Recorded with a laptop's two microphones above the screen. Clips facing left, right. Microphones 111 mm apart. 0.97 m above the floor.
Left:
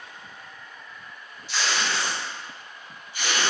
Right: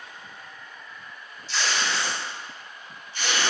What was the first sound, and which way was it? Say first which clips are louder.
Tape being pulled: even; 15° left (ahead or behind).